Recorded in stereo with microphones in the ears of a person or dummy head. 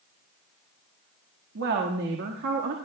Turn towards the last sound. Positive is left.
turn(degrees=-60)  # may be behind; listen again after turning